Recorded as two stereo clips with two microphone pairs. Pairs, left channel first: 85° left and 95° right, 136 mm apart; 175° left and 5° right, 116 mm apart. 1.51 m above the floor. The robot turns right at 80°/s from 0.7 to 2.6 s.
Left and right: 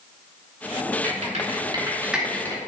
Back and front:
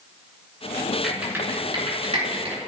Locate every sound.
1.0 s typing on a keyboard: 100° right, 3 m; by 2.6 s 25° left, 3 m